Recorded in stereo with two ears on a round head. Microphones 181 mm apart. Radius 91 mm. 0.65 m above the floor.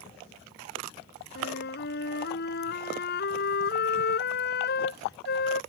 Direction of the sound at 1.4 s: 55° left (ahead or behind).